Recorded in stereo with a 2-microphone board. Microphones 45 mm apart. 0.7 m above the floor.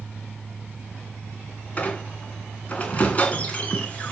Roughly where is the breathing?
No breathing in this recording.